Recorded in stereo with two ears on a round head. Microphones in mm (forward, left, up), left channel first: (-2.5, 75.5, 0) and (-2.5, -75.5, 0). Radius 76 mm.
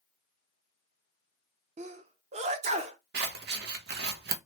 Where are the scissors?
70° right (ahead or behind), 0.7 m.